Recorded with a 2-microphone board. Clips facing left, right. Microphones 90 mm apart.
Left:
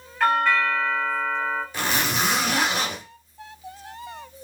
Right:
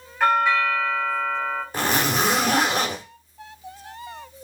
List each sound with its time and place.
0.2 s a doorbell: 5° right (ahead or behind), 1.8 m
1.7 s a zipper: 45° right (ahead or behind), 0.9 m